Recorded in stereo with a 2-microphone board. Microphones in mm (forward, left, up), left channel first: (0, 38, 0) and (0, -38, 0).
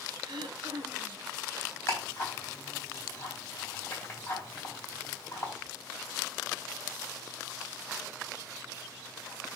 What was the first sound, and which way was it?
Throat clearing, 75° right (ahead or behind).